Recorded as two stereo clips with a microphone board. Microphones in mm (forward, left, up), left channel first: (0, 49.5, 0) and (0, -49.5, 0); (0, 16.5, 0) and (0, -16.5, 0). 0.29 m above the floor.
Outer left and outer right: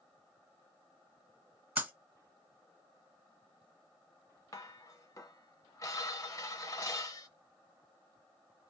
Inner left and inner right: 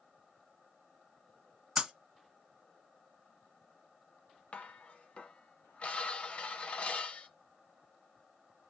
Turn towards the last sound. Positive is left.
turn(degrees=35)  # may be behind; listen again after turning